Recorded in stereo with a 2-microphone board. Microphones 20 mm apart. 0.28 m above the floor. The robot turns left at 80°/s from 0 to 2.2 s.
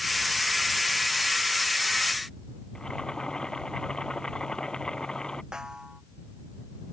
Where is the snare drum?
30° right (ahead or behind).